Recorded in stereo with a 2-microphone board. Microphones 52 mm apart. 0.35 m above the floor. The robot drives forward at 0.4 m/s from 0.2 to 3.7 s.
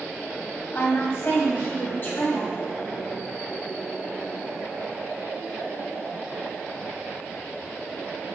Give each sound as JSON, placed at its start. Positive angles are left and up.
{"t": 0.7, "sound": "a woman speaking", "side_deg": 50, "distance_m": 2.5}